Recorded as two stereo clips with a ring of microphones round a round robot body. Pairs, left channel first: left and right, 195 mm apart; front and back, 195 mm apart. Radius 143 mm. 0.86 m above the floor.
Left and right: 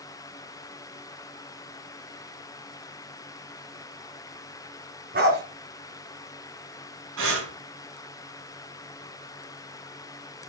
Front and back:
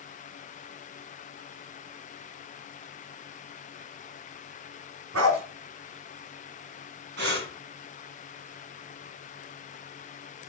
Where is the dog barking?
150° right, 4 m.